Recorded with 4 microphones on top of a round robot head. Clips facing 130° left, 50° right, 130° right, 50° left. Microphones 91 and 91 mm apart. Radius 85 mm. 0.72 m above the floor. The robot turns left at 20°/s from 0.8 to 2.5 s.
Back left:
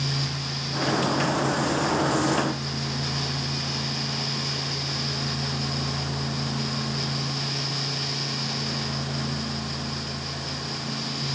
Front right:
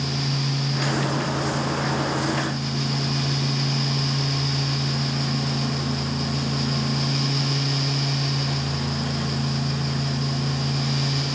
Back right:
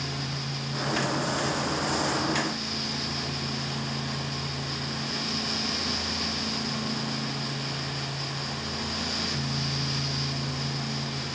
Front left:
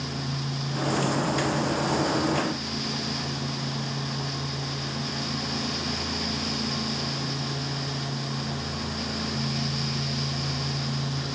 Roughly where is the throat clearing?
No throat clearing in this recording.